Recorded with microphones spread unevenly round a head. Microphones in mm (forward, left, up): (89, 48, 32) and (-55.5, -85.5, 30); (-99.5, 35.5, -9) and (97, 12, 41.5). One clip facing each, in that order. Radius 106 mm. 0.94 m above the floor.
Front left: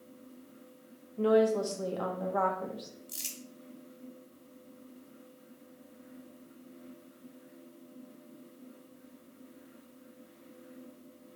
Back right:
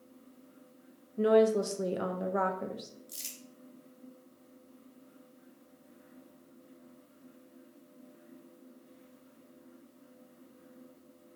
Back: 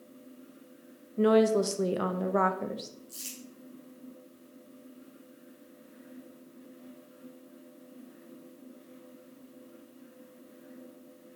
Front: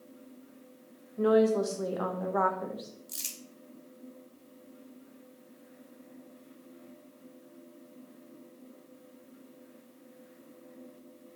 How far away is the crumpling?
About 1.2 m.